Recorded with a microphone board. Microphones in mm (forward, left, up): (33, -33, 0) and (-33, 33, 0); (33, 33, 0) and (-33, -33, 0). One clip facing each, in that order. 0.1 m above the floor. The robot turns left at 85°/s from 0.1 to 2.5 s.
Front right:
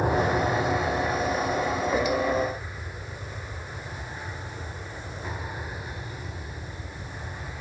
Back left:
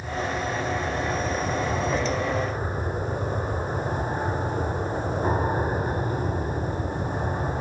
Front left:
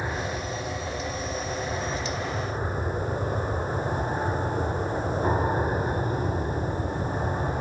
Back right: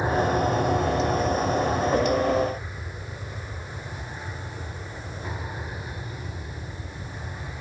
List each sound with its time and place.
0.0 s an aircraft: 65° right; by 7.6 s 90° left